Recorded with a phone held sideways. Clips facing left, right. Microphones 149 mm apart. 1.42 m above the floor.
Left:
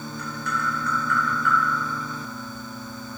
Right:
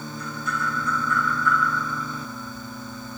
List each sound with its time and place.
0.2 s tapping: 70° left (ahead or behind), 0.8 m